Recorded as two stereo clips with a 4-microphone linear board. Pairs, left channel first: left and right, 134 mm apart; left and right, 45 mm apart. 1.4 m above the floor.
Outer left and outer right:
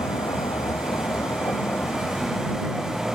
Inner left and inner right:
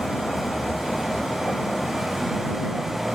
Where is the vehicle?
30° left (ahead or behind); by 3.1 s centre (ahead or behind).